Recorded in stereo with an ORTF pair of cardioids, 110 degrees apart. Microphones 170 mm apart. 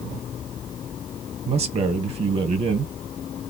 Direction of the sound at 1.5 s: 40° right.